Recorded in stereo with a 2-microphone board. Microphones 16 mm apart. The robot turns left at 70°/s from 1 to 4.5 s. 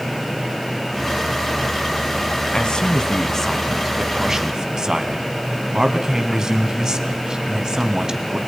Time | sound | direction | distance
2.5 | a man speaking | 95° left | 3 m